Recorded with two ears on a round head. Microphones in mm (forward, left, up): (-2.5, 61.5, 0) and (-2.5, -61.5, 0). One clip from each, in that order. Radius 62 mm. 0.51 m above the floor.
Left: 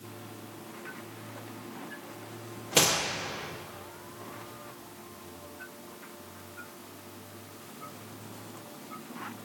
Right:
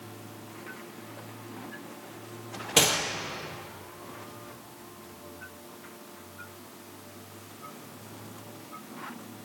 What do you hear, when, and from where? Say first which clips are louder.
2.8 s a gunshot: right 1 dB; 15° right (ahead or behind), 3 m